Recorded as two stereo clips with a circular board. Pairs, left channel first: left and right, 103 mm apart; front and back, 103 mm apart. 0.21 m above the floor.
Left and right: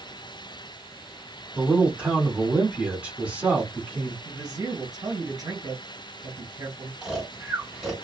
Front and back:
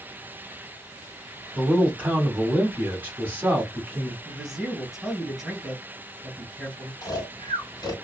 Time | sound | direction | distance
1.6 | a man speaking | 145° right | 1.4 m
4.2 | a man speaking | 100° right | 1.8 m
7.0 | snoring | 5° right | 1.8 m